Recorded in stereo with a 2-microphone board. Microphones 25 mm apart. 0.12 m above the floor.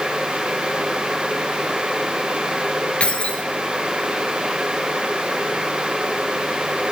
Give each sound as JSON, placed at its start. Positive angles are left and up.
{"t": 3.0, "sound": "keys jangling", "side_deg": 50, "distance_m": 1.4}